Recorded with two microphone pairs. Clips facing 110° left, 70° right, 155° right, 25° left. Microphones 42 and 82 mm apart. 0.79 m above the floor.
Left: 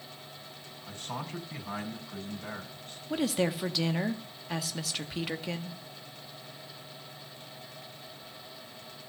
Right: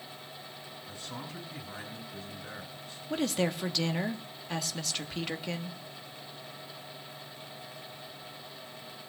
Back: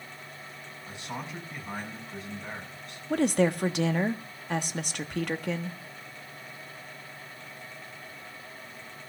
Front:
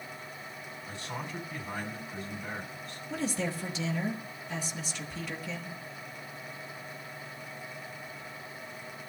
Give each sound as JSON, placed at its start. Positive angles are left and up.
{"t": 0.8, "sound": "a man speaking", "azimuth_deg": 135, "distance_m": 7.0}
{"t": 3.1, "sound": "a woman speaking", "azimuth_deg": -165, "distance_m": 1.4}